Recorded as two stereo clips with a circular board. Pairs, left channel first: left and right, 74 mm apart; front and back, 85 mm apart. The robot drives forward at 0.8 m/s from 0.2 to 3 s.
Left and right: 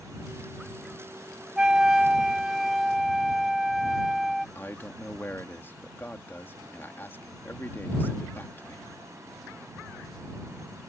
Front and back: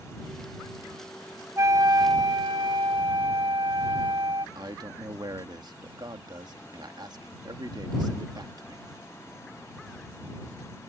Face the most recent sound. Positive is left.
turn(degrees=150)